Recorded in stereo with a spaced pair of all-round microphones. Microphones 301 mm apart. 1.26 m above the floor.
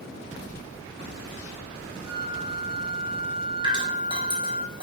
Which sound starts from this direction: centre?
Dripping, at 3.6 s.